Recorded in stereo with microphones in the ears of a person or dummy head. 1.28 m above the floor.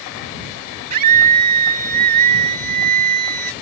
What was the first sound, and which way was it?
A scream, 50° right (ahead or behind).